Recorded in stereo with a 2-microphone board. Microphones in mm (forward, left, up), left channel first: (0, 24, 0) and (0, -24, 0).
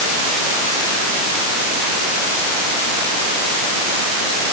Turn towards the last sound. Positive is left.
No sound to turn to.